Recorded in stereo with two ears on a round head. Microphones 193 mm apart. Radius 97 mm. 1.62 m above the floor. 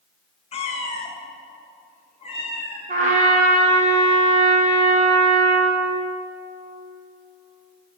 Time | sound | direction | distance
0.5 | a cat meowing | 30° left (ahead or behind) | 0.9 m
2.9 | a trumpet | 35° right (ahead or behind) | 1.7 m